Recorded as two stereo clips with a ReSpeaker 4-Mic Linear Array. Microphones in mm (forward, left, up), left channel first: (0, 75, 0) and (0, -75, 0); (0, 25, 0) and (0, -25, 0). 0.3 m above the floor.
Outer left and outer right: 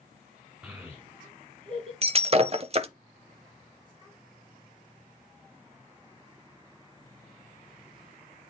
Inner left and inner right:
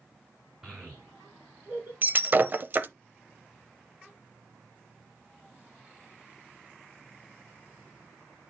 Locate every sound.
0.6 s a child speaking: 10° right (ahead or behind), 2 m; by 1.9 s 45° right (ahead or behind), 2.5 m
2.0 s breaking glass: 40° right (ahead or behind), 0.7 m